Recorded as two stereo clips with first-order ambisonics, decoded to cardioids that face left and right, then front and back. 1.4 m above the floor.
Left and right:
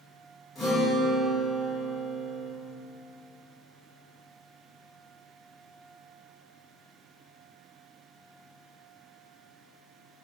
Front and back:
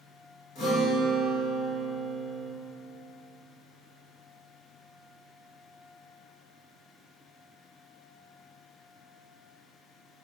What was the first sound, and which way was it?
A guitar, 20° left.